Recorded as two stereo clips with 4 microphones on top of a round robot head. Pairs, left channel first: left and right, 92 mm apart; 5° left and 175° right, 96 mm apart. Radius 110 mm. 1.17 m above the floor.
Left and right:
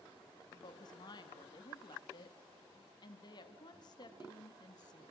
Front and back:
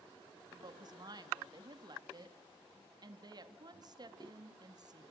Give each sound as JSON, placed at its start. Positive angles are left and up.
{"t": 0.5, "sound": "a woman speaking", "azimuth_deg": 140, "distance_m": 2.0}